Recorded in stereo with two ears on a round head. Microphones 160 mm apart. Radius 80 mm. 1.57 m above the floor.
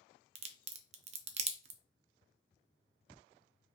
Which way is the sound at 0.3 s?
40° right (ahead or behind).